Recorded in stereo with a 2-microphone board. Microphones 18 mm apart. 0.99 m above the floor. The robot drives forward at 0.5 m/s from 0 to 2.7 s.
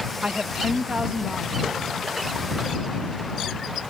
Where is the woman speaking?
55° right (ahead or behind), 0.7 m; by 1.9 s 25° right (ahead or behind), 1.2 m.